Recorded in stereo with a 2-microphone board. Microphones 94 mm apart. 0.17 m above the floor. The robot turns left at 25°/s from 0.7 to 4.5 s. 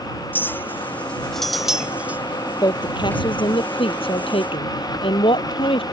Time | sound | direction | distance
0.3 | a clink | 20° left (ahead or behind) | ?
2.6 | a woman speaking | 130° left | ?